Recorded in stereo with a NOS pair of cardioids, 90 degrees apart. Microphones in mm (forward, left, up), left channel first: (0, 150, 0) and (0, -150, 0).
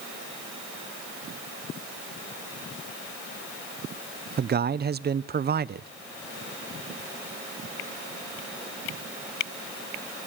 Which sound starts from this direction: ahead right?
A man speaking, at 4.4 s.